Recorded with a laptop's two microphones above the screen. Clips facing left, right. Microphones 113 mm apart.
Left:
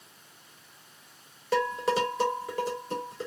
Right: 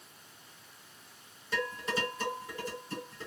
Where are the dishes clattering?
80° left, 1.5 m.